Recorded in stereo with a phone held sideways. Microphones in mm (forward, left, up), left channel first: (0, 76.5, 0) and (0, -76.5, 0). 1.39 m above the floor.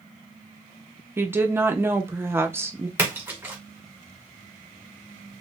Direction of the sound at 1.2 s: 15° right (ahead or behind).